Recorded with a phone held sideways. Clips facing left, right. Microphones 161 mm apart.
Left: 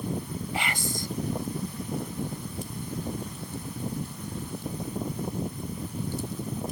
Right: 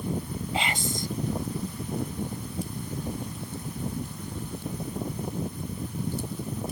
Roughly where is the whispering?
Right.